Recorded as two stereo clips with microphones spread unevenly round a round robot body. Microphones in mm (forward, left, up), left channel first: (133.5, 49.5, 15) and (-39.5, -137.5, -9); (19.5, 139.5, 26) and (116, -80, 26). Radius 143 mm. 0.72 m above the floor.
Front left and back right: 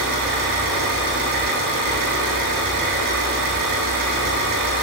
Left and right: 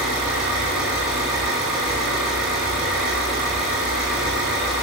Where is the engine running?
155° right, 5.5 m.